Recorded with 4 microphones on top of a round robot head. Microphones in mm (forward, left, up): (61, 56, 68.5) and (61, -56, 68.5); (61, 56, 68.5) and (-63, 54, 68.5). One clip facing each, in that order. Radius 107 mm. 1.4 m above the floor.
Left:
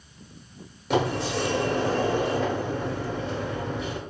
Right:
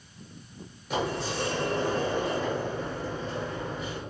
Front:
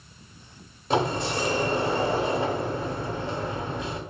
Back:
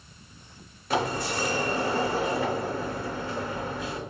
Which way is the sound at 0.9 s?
70° left.